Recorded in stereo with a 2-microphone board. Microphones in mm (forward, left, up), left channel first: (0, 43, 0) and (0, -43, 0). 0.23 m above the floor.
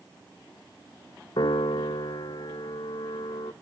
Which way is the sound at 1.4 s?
70° left (ahead or behind).